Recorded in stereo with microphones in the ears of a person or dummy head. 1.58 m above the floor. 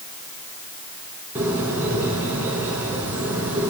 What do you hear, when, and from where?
1.4 s a bird: 10° right (ahead or behind), 3.5 m